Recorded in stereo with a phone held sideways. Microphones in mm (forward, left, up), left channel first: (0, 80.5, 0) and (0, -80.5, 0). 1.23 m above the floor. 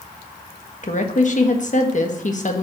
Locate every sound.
0.8 s a woman speaking: 50° left (ahead or behind), 1.4 m